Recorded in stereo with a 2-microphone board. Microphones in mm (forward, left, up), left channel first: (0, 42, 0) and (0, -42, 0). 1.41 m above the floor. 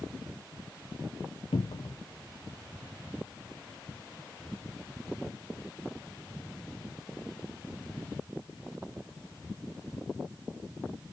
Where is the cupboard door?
85° left, 0.7 m.